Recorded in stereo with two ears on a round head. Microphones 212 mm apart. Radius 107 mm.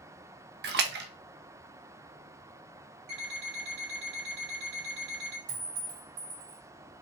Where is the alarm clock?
80° right, 2.5 m.